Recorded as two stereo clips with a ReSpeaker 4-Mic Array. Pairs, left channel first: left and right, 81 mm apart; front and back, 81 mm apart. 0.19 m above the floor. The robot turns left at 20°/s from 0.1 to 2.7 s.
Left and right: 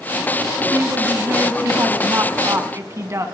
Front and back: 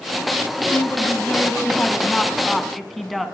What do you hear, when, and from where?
0.7 s a woman speaking: 50° right, 1.2 m; by 3.3 s 90° right, 1.2 m